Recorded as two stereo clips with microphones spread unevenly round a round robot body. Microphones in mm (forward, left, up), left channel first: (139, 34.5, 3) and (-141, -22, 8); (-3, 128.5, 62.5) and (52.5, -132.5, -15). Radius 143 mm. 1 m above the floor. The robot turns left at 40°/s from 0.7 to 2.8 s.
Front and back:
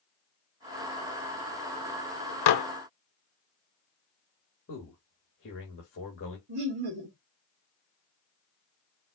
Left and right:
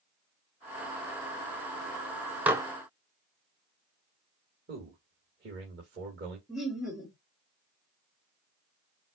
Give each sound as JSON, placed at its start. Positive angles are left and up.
{"t": 2.5, "sound": "dishes clattering", "azimuth_deg": 10, "distance_m": 0.7}
{"t": 4.7, "sound": "a man speaking", "azimuth_deg": -35, "distance_m": 2.0}
{"t": 6.5, "sound": "laughter", "azimuth_deg": -165, "distance_m": 1.8}